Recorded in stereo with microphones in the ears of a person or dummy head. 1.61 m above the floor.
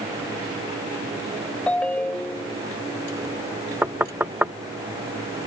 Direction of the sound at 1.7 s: 5° left (ahead or behind).